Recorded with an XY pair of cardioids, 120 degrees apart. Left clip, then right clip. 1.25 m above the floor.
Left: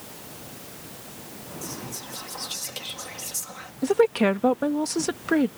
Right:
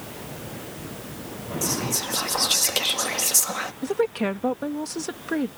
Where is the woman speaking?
25° left.